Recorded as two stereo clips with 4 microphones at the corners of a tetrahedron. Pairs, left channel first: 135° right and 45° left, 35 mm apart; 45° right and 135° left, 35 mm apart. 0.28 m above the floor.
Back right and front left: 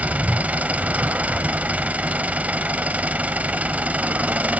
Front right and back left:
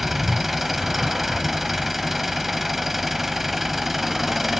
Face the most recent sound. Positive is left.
turn(degrees=50)